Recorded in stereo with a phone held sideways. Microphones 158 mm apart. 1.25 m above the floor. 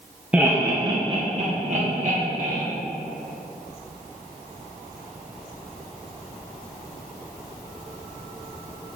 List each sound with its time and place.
0.3 s laughter: 5° right (ahead or behind), 0.8 m; by 2.6 s 60° right (ahead or behind), 2.0 m